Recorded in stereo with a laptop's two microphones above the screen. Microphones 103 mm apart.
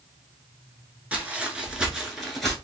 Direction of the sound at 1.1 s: 15° right (ahead or behind).